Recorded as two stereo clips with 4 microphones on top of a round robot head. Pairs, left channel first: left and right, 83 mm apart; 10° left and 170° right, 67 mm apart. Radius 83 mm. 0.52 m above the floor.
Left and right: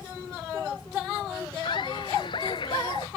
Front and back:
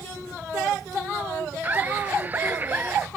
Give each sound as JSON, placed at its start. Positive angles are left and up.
{"t": 1.6, "sound": "laughter", "azimuth_deg": 125}